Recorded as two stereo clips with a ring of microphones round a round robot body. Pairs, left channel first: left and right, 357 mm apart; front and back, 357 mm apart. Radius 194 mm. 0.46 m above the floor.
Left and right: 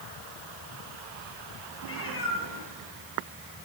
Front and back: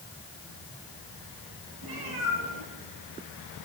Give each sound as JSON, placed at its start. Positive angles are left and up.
{"t": 1.8, "sound": "a cat meowing", "azimuth_deg": 145, "distance_m": 6.0}